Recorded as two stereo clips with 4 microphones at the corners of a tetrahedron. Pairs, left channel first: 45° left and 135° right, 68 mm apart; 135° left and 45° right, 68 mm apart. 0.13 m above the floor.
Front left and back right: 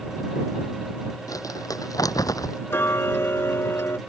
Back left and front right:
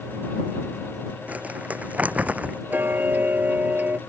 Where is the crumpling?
20° left.